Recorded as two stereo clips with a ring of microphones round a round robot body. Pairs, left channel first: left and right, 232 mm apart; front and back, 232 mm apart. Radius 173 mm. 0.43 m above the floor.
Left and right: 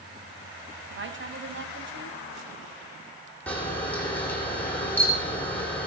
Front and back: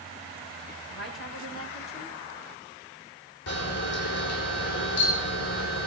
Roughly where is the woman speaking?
Ahead right.